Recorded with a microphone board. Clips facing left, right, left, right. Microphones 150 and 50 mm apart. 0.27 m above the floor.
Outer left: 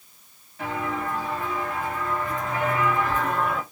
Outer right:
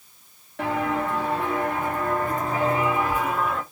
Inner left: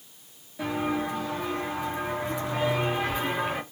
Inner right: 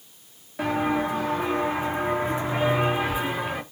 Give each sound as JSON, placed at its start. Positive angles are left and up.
{"t": 0.6, "sound": "footsteps", "side_deg": -80, "distance_m": 1.9}